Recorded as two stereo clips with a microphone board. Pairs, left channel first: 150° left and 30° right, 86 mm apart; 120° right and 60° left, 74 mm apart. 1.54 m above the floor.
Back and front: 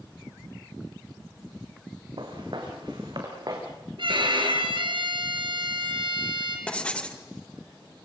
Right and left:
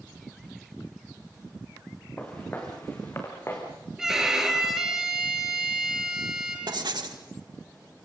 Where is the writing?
75° left, 2 m.